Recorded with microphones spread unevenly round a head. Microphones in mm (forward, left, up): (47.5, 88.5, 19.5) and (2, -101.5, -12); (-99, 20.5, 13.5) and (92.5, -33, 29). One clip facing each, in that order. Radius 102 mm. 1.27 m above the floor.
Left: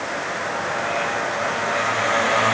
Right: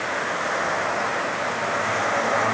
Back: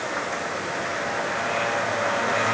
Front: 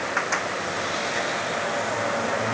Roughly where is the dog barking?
No dog barking in this recording.